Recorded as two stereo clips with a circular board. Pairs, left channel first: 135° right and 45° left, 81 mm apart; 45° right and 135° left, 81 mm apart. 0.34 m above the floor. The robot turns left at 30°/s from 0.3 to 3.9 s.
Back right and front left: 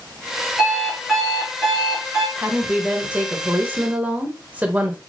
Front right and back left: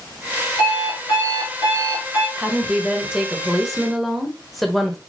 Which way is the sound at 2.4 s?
90° left.